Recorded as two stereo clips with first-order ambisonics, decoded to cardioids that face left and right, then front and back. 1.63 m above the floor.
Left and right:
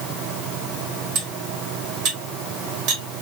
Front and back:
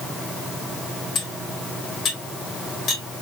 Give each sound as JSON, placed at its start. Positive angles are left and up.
{"t": 1.1, "sound": "cutlery clinking", "azimuth_deg": -65, "distance_m": 2.5}